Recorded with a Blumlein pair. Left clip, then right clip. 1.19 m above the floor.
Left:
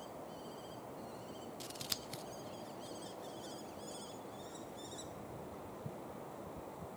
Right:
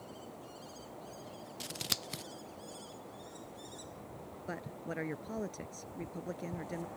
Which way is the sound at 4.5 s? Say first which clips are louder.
Right 6 dB; 45° right.